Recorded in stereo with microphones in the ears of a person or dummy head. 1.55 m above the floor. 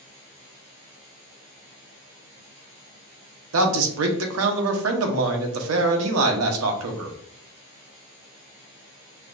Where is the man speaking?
80° right, 0.8 m.